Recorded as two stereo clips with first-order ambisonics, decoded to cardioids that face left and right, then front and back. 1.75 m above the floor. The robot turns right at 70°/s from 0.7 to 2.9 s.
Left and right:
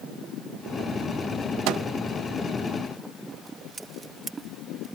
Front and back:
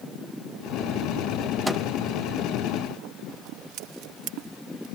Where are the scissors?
160° right.